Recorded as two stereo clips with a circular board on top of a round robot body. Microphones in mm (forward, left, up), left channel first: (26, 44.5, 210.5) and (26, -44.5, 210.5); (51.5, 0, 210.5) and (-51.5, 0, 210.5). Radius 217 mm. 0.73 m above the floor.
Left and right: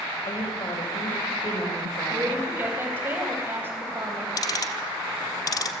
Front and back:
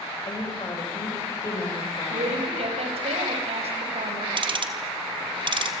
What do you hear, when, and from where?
0.3 s a woman speaking: 55° left, 5.5 m
2.1 s a woman speaking: 155° right, 5.5 m
4.4 s ticking: 140° left, 1.3 m